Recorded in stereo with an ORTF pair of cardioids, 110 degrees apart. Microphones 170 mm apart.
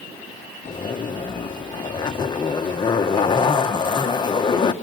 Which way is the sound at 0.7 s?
30° left.